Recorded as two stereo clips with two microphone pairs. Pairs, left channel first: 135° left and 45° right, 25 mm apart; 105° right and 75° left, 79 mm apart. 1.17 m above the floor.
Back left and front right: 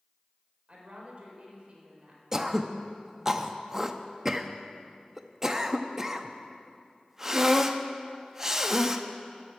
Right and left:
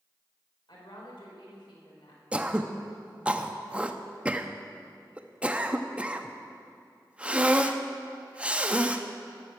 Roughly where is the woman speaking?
Right.